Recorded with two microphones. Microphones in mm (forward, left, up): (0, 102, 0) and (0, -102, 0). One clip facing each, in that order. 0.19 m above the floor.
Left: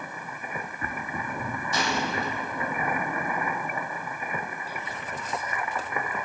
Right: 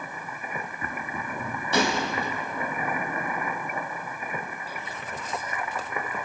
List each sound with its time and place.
1.7 s a gunshot: 70° right (ahead or behind), 4.5 m